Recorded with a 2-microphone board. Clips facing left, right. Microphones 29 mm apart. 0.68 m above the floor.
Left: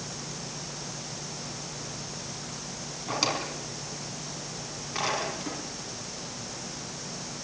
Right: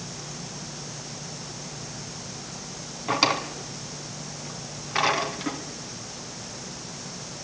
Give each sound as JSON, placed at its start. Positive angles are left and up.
{"t": 3.1, "sound": "a drawer", "side_deg": -30, "distance_m": 3.0}